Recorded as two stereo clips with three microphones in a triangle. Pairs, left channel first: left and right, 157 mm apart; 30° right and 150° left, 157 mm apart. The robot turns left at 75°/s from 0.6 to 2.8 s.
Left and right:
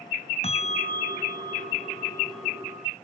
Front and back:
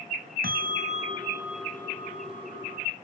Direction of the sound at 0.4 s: 135° left.